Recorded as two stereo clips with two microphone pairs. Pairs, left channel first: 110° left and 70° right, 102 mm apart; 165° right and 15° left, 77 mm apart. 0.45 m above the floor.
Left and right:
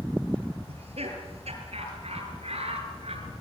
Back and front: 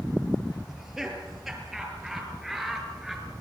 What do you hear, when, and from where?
0.7 s laughter: 75° right, 7.5 m